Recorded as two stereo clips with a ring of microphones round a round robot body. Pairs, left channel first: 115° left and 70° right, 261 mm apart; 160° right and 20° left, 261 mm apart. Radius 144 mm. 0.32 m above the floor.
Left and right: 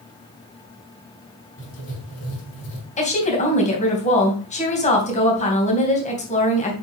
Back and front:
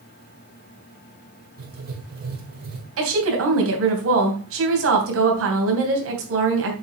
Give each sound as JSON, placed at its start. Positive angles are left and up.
{"t": 1.6, "sound": "writing", "azimuth_deg": 75, "distance_m": 4.0}
{"t": 3.0, "sound": "a woman speaking", "azimuth_deg": 50, "distance_m": 3.0}